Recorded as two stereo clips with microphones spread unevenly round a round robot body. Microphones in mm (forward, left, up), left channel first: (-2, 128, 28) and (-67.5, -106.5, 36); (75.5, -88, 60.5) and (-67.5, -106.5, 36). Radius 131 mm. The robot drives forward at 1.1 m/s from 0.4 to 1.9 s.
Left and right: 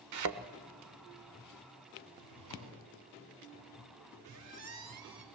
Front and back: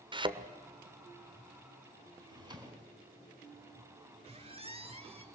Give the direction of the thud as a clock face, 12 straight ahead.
4 o'clock.